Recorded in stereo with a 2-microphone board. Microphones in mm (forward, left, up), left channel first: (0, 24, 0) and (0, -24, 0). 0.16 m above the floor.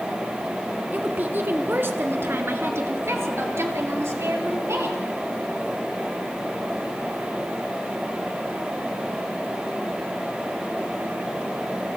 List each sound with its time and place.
0.9 s a woman speaking: 35° right (ahead or behind), 1.9 m; by 5.0 s 70° right (ahead or behind), 4.5 m